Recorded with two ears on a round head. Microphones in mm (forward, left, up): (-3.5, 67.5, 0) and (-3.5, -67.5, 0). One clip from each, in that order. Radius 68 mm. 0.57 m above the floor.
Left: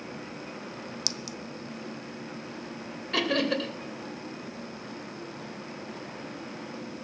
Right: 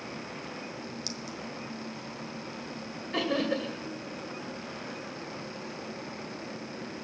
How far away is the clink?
About 0.6 m.